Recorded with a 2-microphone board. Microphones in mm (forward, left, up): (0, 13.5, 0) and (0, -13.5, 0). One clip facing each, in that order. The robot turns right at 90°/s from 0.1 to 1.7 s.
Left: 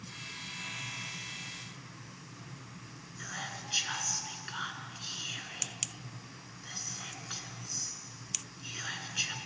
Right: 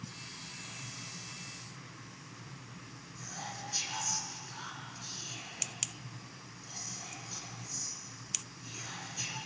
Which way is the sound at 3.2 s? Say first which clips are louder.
Left 3 dB; 60° left (ahead or behind).